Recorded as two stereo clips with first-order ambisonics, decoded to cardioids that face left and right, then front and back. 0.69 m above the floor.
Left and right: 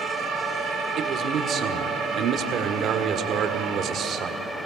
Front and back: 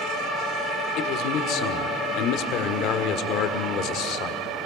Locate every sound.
1.0 s a man speaking: 35° right, 1.6 m